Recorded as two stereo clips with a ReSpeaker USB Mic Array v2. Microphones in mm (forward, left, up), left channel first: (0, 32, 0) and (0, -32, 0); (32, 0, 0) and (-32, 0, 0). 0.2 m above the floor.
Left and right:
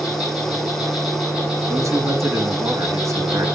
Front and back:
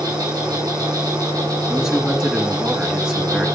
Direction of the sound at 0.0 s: 170° right.